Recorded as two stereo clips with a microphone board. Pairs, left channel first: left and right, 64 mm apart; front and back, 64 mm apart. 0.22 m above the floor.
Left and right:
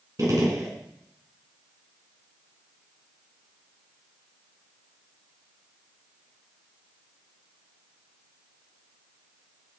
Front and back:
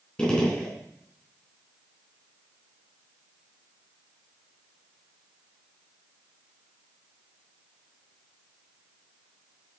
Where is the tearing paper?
No tearing paper in this recording.